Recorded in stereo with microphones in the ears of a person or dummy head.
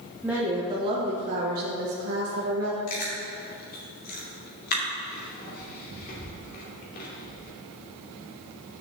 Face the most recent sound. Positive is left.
turn(degrees=50)  # may be behind; listen again after turning